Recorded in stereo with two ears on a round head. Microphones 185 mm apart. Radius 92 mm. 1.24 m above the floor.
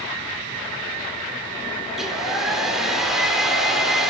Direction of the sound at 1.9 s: Centre (ahead or behind).